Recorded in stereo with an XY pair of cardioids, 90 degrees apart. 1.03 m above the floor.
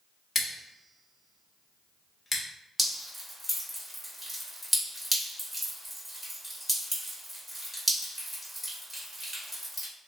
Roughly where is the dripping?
Ahead.